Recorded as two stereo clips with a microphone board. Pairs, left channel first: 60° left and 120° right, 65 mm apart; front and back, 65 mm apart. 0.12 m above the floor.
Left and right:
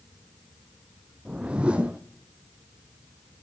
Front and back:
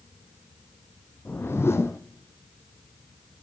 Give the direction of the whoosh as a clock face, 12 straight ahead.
2 o'clock.